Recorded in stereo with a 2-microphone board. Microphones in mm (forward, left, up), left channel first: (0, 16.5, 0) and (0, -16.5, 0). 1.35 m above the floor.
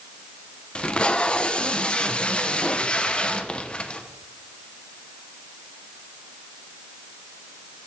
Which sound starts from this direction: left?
Tape being pulled, at 0.8 s.